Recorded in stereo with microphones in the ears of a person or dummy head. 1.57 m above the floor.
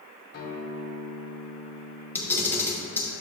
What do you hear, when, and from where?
0.3 s a guitar: 50° left (ahead or behind), 1.2 m
2.1 s a camera shutter: 10° left (ahead or behind), 1.2 m